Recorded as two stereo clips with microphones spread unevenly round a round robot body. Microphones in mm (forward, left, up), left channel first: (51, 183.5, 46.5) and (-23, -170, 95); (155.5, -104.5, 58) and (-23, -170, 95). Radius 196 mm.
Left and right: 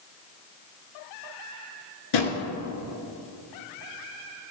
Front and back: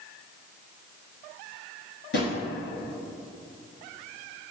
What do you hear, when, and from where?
2.1 s a drawer: 60° left, 1.5 m